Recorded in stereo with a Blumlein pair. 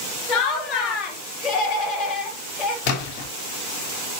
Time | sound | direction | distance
0.3 | laughter | 30° left | 2.5 m
2.9 | a splash | 40° left | 3.5 m